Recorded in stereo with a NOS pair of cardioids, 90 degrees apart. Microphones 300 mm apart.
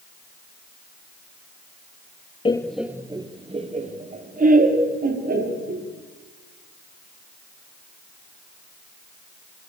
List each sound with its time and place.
2.5 s laughter: 15° left, 0.9 m; by 5.8 s 30° right, 5 m